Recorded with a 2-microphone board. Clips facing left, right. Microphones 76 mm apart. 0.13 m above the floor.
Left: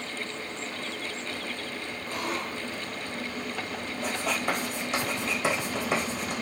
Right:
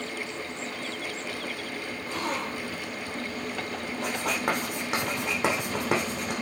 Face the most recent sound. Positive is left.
turn(degrees=-80)